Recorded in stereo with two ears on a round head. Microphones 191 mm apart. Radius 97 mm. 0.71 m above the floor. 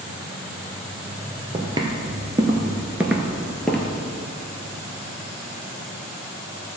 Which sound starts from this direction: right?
Footsteps, at 1.5 s.